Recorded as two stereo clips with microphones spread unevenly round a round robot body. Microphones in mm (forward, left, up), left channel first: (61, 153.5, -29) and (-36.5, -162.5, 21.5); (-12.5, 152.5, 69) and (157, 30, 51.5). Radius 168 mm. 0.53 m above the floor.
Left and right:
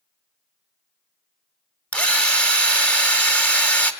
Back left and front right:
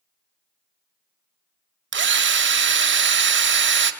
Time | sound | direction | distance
1.9 | a drill | 10° right | 2.0 m